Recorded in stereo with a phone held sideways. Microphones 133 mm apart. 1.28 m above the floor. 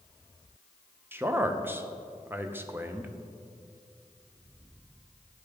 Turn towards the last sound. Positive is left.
turn(degrees=-15)  # may be behind; listen again after turning